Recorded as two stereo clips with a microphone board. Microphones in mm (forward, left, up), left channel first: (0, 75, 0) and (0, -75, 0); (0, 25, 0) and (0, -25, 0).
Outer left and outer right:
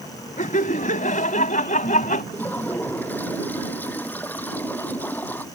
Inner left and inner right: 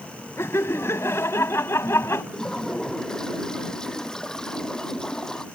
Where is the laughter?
65° left (ahead or behind).